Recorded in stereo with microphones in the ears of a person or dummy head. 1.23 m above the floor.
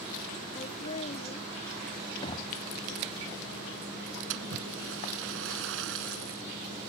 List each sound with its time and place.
0.6 s laughter: 40° left (ahead or behind)
2.2 s knocking: 30° left (ahead or behind)
4.3 s a splash: 75° right (ahead or behind)